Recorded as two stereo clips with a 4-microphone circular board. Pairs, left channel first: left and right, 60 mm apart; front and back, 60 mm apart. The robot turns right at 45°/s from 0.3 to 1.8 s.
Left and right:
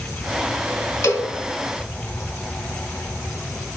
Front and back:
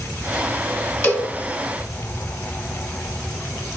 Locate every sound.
1.0 s a cowbell: 50° left, 1.6 m; by 1.3 s 60° left, 1.6 m